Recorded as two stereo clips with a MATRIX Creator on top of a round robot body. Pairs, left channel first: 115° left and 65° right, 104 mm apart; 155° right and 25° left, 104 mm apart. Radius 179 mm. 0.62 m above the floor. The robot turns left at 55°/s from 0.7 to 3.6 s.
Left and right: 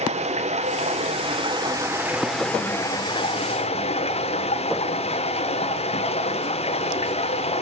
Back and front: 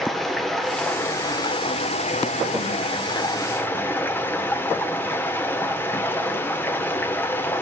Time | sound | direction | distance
0.0 | running water | 70° right | 2.0 m